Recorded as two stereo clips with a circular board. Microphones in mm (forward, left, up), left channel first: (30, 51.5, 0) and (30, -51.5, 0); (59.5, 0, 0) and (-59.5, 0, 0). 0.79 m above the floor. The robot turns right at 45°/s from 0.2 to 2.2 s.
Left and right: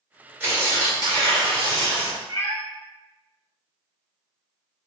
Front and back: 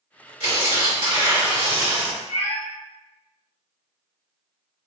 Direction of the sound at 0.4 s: 160° right.